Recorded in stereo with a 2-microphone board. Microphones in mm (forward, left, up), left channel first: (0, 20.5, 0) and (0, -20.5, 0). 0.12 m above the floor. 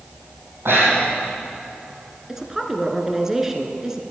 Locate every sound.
0.7 s breathing: 70° right (ahead or behind), 4 m
2.3 s a woman speaking: 10° right (ahead or behind), 1.4 m